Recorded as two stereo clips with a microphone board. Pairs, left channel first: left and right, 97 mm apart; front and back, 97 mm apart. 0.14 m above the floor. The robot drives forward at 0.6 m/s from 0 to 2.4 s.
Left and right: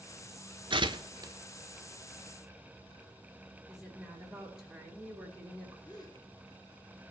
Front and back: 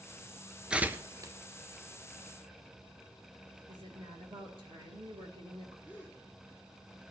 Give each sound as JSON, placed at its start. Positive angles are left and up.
{"t": 0.7, "sound": "tearing paper", "azimuth_deg": -100, "distance_m": 0.6}
{"t": 3.7, "sound": "a woman speaking", "azimuth_deg": -175, "distance_m": 3.0}
{"t": 5.8, "sound": "a gasp", "azimuth_deg": 110, "distance_m": 1.9}